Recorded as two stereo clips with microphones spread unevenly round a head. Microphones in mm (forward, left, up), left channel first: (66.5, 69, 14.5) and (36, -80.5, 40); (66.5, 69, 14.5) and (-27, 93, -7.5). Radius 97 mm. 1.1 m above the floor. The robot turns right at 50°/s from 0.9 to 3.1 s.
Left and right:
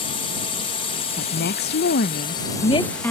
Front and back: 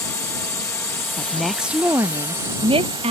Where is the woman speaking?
60° left; by 3.1 s 160° left.